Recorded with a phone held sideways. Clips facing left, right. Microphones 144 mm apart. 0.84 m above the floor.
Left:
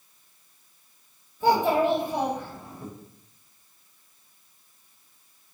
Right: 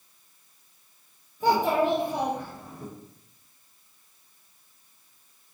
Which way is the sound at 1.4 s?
10° right (ahead or behind).